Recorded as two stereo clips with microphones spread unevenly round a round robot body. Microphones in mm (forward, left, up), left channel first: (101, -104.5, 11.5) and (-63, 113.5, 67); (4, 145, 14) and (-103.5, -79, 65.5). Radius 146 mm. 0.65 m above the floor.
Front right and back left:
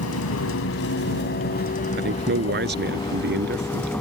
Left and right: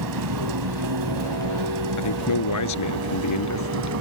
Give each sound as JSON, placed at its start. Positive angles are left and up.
{"t": 0.0, "sound": "a vehicle", "azimuth_deg": -95}
{"t": 2.0, "sound": "a man speaking", "azimuth_deg": 70}